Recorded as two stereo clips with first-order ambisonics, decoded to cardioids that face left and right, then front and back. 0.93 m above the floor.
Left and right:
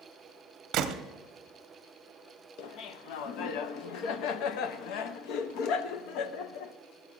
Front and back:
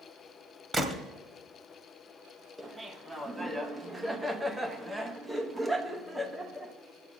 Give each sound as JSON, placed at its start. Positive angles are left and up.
{"t": 0.7, "sound": "a gunshot", "azimuth_deg": -105, "distance_m": 0.7}
{"t": 2.6, "sound": "laughter", "azimuth_deg": 95, "distance_m": 0.7}